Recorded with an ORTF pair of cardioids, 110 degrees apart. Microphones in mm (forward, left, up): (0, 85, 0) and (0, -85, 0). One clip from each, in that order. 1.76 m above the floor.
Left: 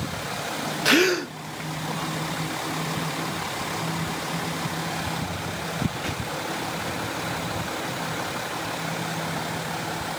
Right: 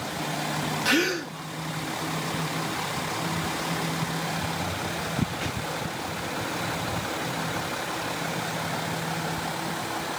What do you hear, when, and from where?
0.8 s a gasp: 30° left, 0.9 m